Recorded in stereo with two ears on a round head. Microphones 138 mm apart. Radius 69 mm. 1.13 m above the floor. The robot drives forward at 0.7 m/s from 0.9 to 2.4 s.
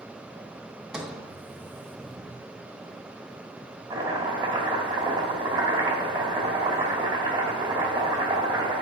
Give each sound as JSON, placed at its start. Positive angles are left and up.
{"t": 0.9, "sound": "a sliding door", "side_deg": -5, "distance_m": 0.9}
{"t": 3.9, "sound": "chopping", "side_deg": -25, "distance_m": 1.9}